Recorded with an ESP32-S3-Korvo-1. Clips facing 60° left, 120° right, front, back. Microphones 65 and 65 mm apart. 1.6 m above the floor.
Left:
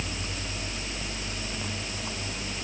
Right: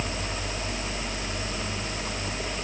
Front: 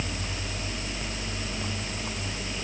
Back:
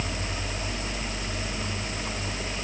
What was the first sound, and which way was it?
Only background noise.